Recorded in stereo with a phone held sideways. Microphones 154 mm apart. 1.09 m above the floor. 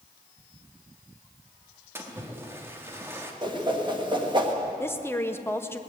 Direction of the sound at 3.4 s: 30° right (ahead or behind).